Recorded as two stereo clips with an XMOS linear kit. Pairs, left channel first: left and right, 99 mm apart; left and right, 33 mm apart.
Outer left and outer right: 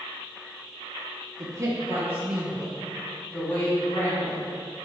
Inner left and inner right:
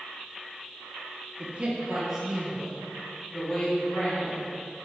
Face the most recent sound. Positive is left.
turn(degrees=25)  # may be behind; listen again after turning